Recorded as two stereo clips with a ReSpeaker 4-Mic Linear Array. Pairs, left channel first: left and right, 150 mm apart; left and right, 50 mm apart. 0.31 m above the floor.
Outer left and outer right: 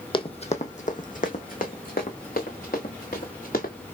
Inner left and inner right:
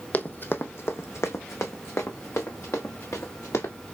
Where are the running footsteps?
35° left (ahead or behind), 0.7 m; by 3.7 s 80° left, 2.5 m.